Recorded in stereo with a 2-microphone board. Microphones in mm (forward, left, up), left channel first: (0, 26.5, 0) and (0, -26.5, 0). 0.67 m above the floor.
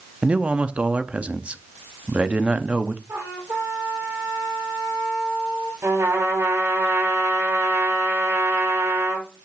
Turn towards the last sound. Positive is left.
turn(degrees=-75)  # may be behind; listen again after turning